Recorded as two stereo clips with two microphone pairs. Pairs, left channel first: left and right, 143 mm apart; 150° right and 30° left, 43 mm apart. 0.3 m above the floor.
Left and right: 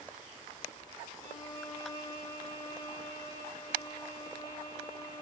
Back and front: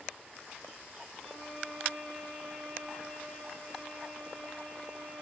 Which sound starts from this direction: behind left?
A violin, at 1.2 s.